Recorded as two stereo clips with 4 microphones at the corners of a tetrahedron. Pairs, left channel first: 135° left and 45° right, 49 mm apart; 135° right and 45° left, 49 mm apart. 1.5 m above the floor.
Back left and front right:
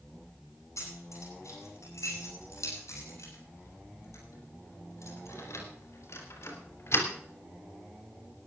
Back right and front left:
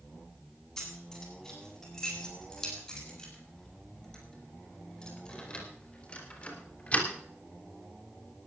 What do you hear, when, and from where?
0.8 s keys jangling: 145° left, 9 m; by 7.1 s 165° left, 3 m